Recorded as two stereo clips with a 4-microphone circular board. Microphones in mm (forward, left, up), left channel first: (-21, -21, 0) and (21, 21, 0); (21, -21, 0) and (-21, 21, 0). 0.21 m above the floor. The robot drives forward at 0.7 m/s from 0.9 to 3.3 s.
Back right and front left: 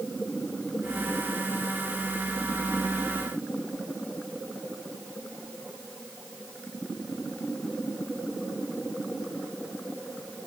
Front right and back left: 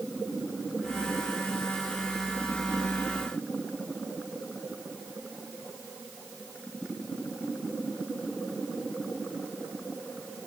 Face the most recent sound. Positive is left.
No sound to turn to.